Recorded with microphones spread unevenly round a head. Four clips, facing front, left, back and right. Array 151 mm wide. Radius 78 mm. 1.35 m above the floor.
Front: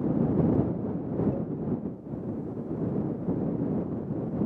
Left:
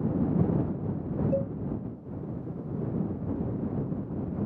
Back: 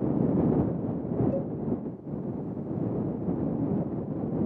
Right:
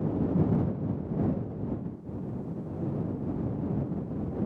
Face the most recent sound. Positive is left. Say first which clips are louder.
# left 6 dB, back 2 dB
turn(degrees=105)